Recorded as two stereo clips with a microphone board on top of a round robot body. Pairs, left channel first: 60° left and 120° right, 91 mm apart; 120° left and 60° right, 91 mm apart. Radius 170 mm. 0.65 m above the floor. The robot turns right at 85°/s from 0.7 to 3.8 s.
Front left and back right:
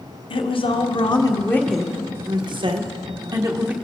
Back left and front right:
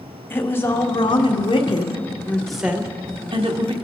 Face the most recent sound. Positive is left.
turn(degrees=-40)